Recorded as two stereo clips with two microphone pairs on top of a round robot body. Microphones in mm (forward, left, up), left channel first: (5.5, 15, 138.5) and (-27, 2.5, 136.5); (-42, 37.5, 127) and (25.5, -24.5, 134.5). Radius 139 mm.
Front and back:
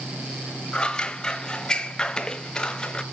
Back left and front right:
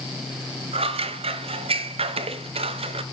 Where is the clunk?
I don't hear a clunk.